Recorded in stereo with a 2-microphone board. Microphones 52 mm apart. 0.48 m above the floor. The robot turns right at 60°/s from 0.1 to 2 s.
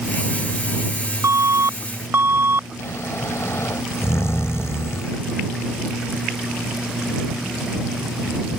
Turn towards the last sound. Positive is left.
turn(degrees=55)  # may be behind; listen again after turning